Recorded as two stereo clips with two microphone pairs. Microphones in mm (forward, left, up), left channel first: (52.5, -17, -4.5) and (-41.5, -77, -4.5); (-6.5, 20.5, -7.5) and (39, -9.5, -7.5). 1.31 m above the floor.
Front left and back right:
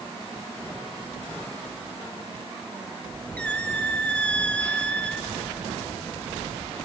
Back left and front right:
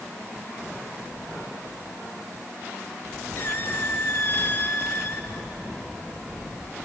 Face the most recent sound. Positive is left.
turn(degrees=110)